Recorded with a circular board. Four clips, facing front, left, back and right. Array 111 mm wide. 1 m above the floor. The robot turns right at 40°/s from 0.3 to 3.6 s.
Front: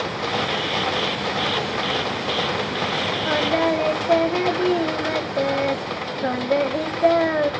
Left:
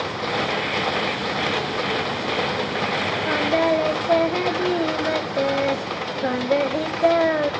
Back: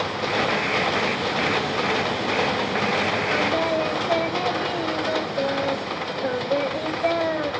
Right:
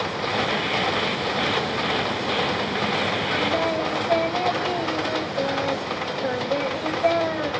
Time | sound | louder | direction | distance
3.2 | singing | left 7 dB, front 6 dB | 30° left | 3 m